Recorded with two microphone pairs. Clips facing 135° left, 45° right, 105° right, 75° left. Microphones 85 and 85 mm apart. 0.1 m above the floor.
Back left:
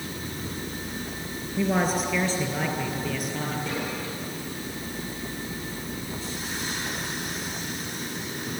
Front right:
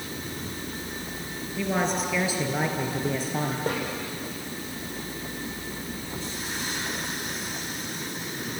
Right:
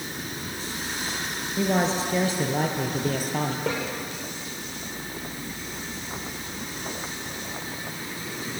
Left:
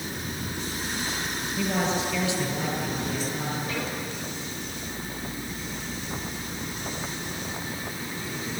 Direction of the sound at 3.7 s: 90° right.